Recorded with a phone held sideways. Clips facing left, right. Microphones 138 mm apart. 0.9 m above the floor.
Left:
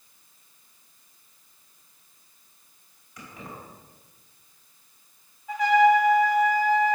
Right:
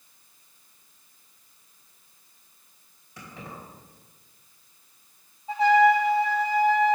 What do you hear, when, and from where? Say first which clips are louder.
3.2 s keys jangling: even; 30° right (ahead or behind), 3 m
5.5 s a trumpet: even; 30° right (ahead or behind), 0.7 m